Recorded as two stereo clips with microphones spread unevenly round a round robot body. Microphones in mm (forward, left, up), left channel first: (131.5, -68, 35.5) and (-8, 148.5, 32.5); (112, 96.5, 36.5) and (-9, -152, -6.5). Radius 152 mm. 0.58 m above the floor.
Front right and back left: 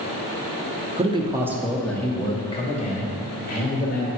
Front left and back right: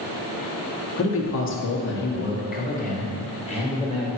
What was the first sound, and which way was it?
A man speaking, 75° left.